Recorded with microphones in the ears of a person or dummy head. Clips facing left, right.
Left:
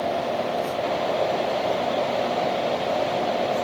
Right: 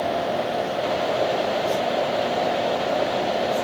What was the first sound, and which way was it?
Only background noise.